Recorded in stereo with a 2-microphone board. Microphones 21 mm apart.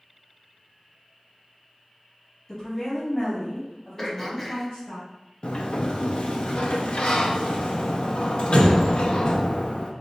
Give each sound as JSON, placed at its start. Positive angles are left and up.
{"t": 2.5, "sound": "a woman speaking", "side_deg": 25, "distance_m": 1.7}
{"t": 4.0, "sound": "throat clearing", "side_deg": 15, "distance_m": 0.7}
{"t": 5.4, "sound": "a sliding door", "side_deg": 60, "distance_m": 0.5}